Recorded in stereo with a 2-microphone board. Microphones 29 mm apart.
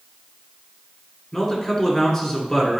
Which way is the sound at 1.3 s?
20° left (ahead or behind).